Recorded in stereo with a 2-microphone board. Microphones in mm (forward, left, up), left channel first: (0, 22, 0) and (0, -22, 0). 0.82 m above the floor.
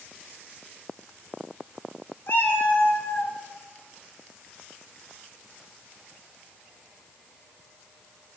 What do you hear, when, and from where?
2.3 s a cat meowing: 50° left (ahead or behind), 2.5 m